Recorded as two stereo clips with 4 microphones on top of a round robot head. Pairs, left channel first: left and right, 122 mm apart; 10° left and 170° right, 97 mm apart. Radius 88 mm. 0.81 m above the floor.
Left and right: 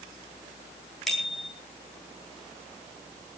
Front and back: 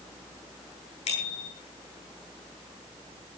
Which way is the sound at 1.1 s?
Straight ahead.